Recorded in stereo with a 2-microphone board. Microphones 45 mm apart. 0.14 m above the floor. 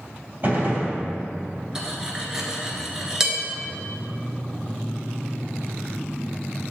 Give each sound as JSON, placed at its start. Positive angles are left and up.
{"t": 0.4, "sound": "a gunshot", "side_deg": -45, "distance_m": 2.5}
{"t": 1.8, "sound": "cutlery clinking", "side_deg": -15, "distance_m": 1.3}